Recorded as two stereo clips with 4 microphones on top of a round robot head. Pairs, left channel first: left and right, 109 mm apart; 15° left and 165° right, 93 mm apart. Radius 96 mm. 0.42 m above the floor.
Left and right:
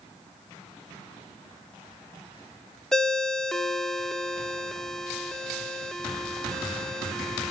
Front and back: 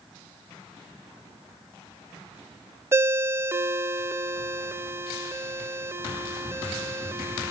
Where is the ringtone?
175° left, 0.6 m.